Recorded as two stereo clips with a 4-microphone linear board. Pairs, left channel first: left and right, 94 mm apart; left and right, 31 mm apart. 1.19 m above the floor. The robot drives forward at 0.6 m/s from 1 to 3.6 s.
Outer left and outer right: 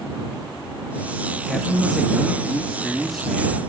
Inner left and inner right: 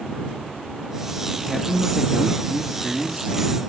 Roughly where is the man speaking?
Centre.